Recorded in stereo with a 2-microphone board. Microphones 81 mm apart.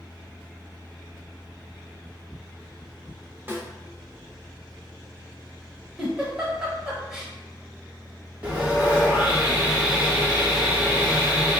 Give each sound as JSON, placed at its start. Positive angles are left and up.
{"t": 3.5, "sound": "a snare drum", "side_deg": -25, "distance_m": 0.7}
{"t": 6.0, "sound": "a giggle", "side_deg": -10, "distance_m": 0.8}
{"t": 8.4, "sound": "sawing", "side_deg": -15, "distance_m": 1.0}